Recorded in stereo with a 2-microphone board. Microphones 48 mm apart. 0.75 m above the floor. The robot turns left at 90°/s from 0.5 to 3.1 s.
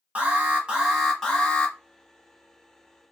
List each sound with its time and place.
0.1 s an alarm: 125° right, 1.2 m; by 1.8 s 125° left, 1.2 m